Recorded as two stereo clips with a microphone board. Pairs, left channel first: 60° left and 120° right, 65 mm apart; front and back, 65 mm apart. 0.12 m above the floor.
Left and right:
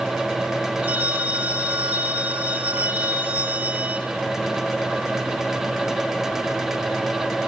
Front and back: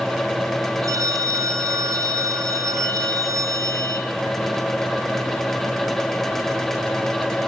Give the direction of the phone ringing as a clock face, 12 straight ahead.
6 o'clock.